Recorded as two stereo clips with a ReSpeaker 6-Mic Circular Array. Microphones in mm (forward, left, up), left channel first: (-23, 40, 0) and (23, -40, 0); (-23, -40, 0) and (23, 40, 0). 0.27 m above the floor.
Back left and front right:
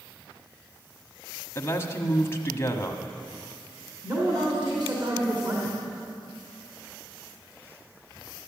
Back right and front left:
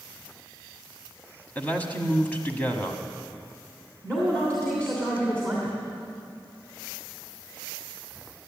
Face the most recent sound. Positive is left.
turn(degrees=-45)